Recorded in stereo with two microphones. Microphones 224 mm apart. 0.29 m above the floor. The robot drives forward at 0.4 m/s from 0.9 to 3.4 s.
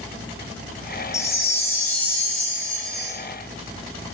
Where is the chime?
15° left (ahead or behind), 0.6 m; by 3.2 s 5° left (ahead or behind), 1.3 m.